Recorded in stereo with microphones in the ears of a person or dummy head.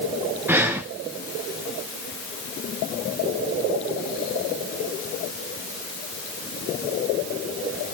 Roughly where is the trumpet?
No trumpet in this recording.